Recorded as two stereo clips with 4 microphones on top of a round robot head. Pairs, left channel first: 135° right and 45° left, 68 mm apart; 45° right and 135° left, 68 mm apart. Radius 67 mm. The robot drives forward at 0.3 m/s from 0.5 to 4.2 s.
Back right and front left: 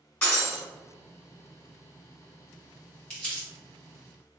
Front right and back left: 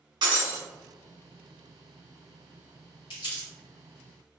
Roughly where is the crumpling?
Ahead right.